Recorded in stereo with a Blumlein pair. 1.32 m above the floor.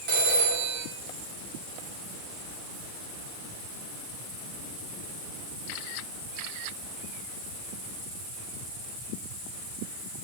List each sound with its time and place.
0.1 s a phone ringing: 35° right, 2 m